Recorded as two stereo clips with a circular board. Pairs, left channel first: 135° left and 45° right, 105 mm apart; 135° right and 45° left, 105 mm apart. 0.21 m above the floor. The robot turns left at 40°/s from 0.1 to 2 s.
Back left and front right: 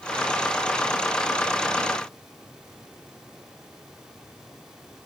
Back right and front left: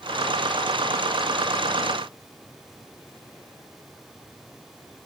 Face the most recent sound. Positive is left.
No sound to turn to.